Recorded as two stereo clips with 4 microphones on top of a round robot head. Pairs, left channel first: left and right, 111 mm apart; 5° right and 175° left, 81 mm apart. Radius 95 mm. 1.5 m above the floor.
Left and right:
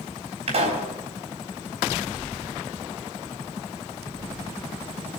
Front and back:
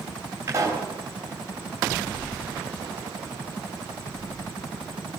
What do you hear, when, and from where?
0.5 s a pop: 120° right, 4 m